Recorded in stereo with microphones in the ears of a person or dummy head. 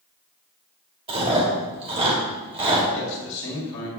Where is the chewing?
35° right (ahead or behind), 2.5 m.